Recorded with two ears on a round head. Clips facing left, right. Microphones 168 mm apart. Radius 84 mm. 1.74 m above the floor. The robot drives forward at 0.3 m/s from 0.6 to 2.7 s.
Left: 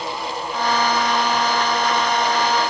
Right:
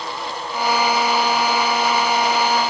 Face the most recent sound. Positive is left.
No sound to turn to.